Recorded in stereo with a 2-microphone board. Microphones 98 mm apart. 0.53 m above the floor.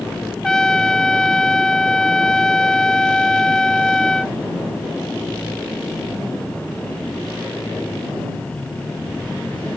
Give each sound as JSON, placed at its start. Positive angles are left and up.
{"t": 0.4, "sound": "a trumpet", "side_deg": 5}